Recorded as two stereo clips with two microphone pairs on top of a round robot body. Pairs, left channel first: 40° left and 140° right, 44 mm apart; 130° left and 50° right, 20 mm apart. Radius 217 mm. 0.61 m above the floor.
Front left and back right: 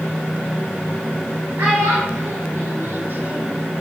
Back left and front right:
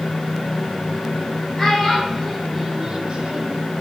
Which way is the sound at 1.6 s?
160° right.